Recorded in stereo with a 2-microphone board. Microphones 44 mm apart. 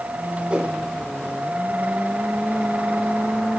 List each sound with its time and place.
0.5 s a whoosh: 25° right (ahead or behind), 4.5 m